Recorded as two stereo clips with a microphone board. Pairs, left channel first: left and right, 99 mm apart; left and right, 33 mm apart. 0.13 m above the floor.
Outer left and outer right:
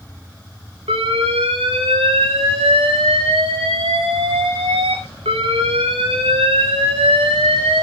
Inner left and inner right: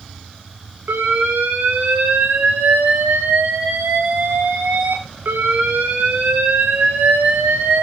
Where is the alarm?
80° right, 9.5 m.